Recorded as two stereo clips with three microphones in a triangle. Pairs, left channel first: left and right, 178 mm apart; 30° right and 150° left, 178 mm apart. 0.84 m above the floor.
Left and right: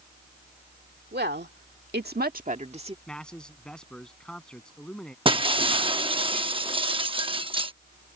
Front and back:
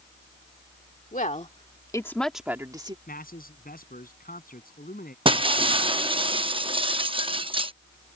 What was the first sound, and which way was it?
A woman speaking, 70° right.